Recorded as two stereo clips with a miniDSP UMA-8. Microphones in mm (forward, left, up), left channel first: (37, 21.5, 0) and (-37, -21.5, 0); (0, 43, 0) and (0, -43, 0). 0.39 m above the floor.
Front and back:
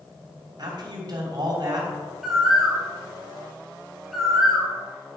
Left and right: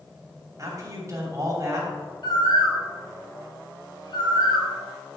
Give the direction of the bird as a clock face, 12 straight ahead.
8 o'clock.